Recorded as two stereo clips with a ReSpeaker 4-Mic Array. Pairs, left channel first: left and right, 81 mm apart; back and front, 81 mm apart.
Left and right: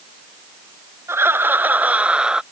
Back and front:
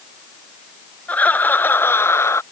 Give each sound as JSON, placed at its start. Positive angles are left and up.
{"t": 1.1, "sound": "laughter", "azimuth_deg": -120}